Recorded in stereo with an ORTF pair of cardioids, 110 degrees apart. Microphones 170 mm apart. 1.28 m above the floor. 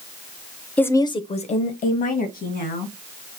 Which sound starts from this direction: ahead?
A woman speaking, at 0.8 s.